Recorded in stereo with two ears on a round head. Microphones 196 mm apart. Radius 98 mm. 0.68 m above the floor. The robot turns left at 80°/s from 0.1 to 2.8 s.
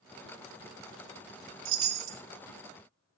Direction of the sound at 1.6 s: 60° right.